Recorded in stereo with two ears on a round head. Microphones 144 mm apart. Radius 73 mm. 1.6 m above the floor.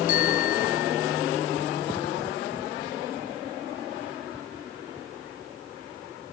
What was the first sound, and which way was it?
A bicycle bell, 55° left (ahead or behind).